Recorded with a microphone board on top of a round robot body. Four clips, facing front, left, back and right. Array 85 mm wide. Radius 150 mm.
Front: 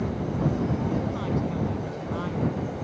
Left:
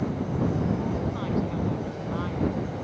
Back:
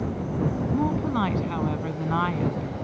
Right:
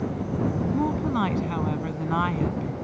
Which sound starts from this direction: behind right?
A woman speaking, at 0.7 s.